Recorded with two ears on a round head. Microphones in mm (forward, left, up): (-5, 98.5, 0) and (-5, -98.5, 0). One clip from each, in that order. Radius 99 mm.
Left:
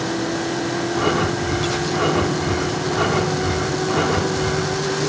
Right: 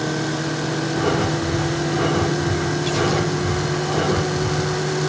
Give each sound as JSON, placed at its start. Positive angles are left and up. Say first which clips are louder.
{"t": 0.9, "sound": "breathing", "louder": "left 1 dB", "side_deg": 55, "distance_m": 3.0}